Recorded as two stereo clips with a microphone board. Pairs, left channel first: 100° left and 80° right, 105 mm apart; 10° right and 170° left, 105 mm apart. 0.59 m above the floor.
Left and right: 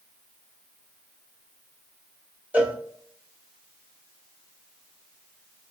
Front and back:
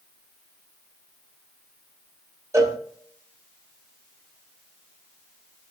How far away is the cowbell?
About 0.9 m.